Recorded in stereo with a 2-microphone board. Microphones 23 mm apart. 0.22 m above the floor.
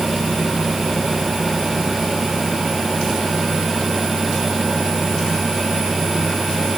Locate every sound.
Only background noise.